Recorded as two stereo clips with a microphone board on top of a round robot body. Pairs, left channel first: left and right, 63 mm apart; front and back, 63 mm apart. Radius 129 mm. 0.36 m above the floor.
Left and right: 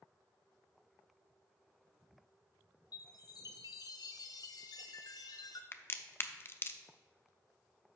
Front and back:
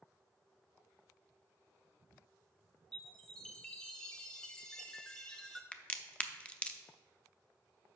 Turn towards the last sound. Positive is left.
turn(degrees=65)